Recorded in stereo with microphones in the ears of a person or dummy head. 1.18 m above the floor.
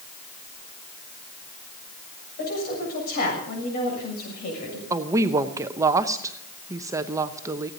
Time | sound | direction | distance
2.4 | a woman speaking | 50° left (ahead or behind) | 7 m
4.9 | a woman speaking | 15° right (ahead or behind) | 1.0 m